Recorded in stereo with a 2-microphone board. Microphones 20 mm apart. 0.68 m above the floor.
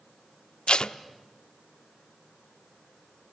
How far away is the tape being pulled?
About 0.7 m.